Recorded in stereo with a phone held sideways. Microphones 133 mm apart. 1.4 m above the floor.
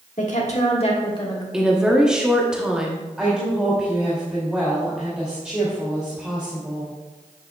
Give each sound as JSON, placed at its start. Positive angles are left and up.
{"t": 0.2, "sound": "a woman speaking", "side_deg": 70, "distance_m": 1.7}
{"t": 1.5, "sound": "a woman speaking", "side_deg": -5, "distance_m": 0.9}
{"t": 3.2, "sound": "a woman speaking", "side_deg": -10, "distance_m": 2.5}